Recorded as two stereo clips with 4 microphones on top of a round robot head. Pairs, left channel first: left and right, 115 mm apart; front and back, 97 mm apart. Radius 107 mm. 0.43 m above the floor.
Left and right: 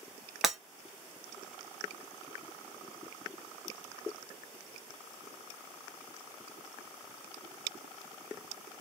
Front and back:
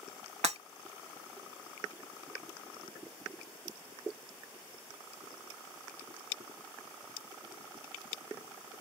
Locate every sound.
0.4 s breaking glass: straight behind, 1.2 m